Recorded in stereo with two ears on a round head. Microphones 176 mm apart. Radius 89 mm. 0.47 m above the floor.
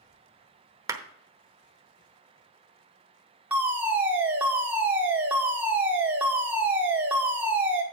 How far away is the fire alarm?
About 1.8 m.